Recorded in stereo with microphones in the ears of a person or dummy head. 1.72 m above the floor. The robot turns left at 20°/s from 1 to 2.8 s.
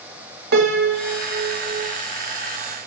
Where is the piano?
55° right (ahead or behind), 2.5 m; by 2.0 s 40° right (ahead or behind), 2.5 m.